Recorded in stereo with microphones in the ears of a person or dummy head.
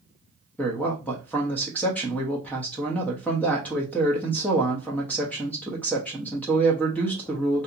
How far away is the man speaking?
About 0.8 m.